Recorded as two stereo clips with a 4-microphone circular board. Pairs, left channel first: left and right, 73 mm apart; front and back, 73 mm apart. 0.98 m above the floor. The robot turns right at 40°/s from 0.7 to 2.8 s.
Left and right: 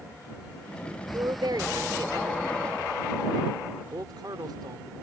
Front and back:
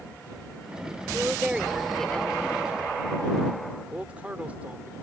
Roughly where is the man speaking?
Right.